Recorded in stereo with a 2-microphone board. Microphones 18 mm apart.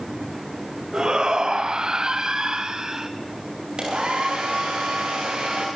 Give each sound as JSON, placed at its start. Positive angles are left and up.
{"t": 0.9, "sound": "a shout", "side_deg": -50, "distance_m": 1.7}
{"t": 3.8, "sound": "a hair dryer", "side_deg": -70, "distance_m": 8.5}